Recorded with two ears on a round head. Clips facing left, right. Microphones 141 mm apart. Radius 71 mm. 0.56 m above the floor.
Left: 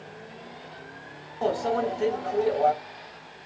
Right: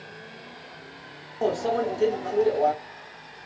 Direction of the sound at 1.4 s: 25° right (ahead or behind).